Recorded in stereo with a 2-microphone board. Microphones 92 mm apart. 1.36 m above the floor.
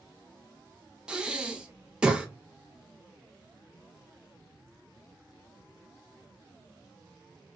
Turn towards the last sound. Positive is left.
turn(degrees=-10)  # may be behind; listen again after turning